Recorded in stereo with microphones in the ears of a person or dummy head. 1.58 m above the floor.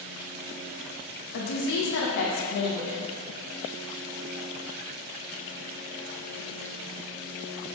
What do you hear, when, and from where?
1.3 s a woman speaking: 60° left (ahead or behind), 1.6 m